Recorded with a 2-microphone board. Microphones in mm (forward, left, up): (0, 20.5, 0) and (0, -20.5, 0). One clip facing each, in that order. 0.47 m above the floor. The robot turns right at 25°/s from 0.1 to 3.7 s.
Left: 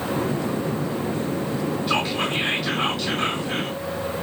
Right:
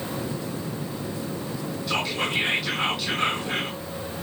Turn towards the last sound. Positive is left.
turn(degrees=-155)